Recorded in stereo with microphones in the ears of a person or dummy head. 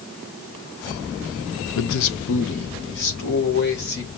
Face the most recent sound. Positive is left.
turn(degrees=55)  # may be behind; listen again after turning